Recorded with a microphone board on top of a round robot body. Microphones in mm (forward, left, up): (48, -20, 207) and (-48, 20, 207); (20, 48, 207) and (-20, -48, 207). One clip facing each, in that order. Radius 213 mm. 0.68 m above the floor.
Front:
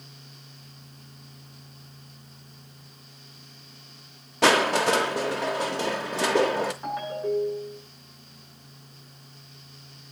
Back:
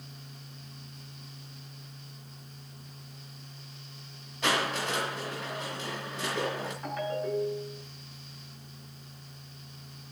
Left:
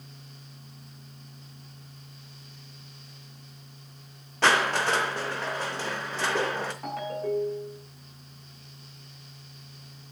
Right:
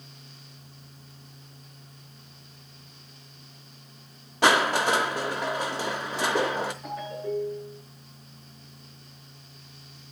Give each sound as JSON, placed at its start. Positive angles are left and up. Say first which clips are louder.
{"t": 4.4, "sound": "crushing", "louder": "front 9 dB, right 2 dB", "azimuth_deg": -35, "distance_m": 0.7}
{"t": 6.8, "sound": "a ringtone", "louder": "front 3 dB, left 2 dB", "azimuth_deg": 45, "distance_m": 8.0}